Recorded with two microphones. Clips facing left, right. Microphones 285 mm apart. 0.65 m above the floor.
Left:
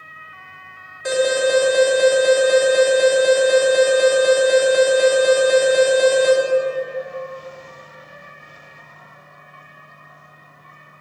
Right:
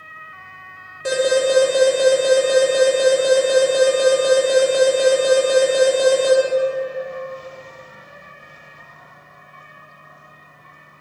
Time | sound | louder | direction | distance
1.1 | an alarm | right 1 dB | 35° right (ahead or behind) | 2 m